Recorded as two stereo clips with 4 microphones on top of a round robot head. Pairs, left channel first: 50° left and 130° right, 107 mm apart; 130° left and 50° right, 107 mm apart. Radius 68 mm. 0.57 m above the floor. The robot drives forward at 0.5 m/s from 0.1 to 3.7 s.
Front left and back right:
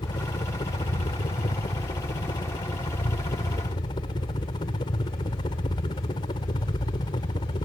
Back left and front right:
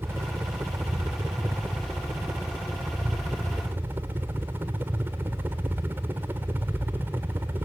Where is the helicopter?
15° left; by 7.7 s 20° left.